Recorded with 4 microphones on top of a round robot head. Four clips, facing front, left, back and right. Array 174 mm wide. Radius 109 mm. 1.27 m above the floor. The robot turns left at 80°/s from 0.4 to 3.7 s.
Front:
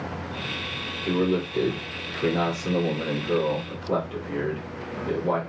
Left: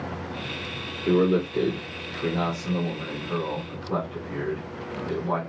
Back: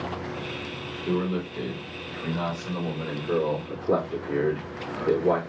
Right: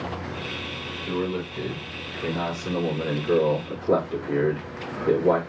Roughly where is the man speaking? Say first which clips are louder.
Left 7 dB, front 3 dB; left.